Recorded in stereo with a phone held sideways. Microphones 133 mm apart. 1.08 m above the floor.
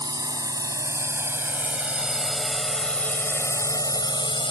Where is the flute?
No flute in this recording.